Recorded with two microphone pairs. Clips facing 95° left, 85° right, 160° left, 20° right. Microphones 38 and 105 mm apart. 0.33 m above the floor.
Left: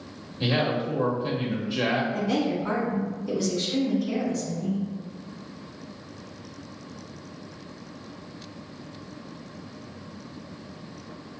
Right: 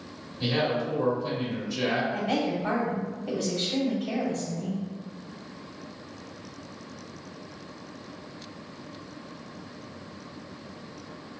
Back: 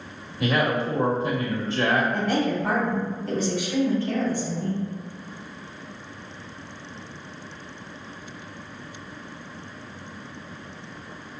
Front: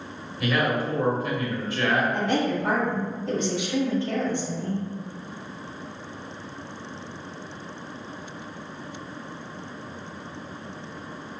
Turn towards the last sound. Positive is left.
turn(degrees=-85)